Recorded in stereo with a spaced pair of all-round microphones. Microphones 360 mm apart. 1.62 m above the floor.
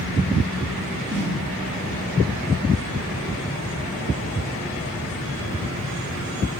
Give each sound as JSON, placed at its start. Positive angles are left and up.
{"t": 1.1, "sound": "a snare drum", "side_deg": -30, "distance_m": 2.5}